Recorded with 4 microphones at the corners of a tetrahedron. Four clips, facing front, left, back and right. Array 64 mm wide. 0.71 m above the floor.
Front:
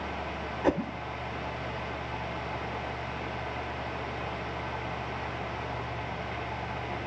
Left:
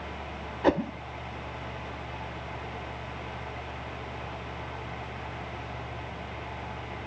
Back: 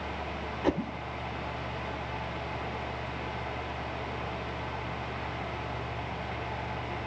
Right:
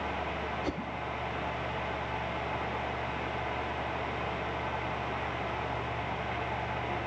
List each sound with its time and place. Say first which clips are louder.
0.6 s a whoosh: left 10 dB, front 2 dB; 75° left